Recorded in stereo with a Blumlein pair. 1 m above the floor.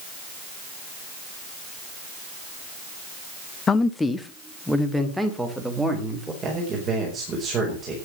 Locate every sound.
3.7 s a man speaking: 20° left, 1.0 m; by 6.3 s 5° right, 4 m
6.4 s a man speaking: 25° right, 5 m